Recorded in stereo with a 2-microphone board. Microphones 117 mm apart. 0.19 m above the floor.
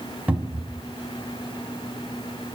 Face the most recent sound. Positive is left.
turn(degrees=-10)  # may be behind; listen again after turning